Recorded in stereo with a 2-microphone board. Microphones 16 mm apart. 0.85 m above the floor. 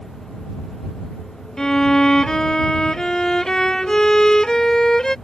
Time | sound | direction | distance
1.6 | a violin | 40° left (ahead or behind) | ?